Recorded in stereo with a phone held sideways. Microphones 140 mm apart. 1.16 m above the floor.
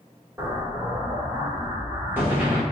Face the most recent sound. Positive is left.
turn(degrees=-15)  # may be behind; listen again after turning